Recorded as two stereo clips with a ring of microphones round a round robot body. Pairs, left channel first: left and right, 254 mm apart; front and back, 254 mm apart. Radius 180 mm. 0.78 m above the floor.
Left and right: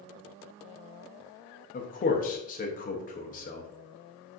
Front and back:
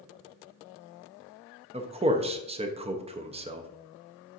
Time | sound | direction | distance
1.7 | a man speaking | 125° left | 0.6 m